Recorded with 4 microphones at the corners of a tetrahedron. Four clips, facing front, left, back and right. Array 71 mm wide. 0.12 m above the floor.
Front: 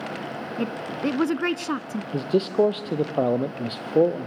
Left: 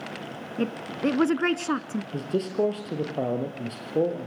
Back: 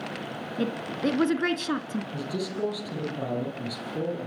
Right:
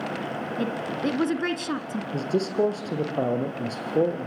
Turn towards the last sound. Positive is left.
turn(degrees=-5)